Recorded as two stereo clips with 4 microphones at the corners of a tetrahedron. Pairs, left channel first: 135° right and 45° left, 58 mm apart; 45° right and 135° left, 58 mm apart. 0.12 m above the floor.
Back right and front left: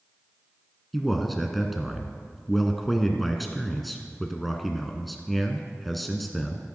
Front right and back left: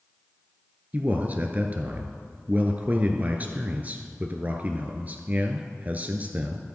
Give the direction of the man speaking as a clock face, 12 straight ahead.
7 o'clock.